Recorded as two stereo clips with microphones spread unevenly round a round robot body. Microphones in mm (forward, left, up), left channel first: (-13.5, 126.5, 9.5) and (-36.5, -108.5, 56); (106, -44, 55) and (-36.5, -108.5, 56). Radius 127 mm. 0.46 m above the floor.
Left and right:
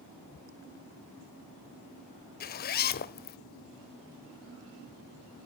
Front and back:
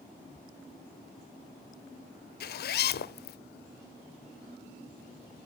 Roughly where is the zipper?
Ahead left.